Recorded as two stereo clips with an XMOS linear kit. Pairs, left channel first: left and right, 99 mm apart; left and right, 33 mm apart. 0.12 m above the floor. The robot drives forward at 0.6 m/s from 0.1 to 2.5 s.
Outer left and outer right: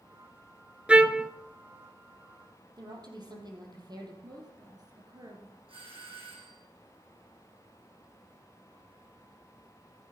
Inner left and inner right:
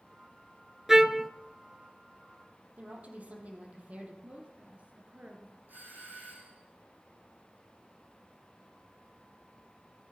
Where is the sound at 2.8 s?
50° right (ahead or behind), 4 m.